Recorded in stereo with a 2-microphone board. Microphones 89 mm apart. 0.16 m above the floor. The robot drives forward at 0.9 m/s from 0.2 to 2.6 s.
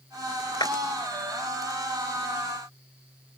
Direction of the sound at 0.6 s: 55° left (ahead or behind).